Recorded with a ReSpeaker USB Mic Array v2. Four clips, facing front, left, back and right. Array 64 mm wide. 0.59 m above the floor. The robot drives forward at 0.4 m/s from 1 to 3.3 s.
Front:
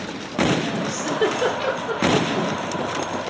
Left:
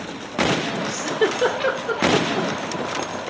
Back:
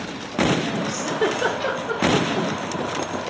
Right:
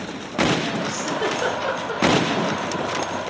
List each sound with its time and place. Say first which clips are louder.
0.9 s a giggle: left 2 dB, front 2 dB; 70° left, 1.9 m; by 2.5 s 90° left, 1.8 m